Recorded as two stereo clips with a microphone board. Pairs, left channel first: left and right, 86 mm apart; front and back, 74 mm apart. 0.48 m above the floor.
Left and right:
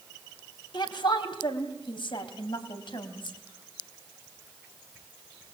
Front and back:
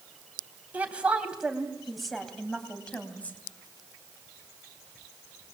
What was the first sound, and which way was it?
A woman speaking, 110° left.